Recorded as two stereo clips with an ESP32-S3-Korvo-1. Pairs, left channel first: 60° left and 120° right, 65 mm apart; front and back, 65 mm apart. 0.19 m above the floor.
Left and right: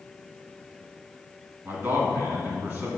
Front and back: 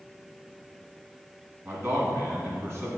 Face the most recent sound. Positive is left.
turn(degrees=-160)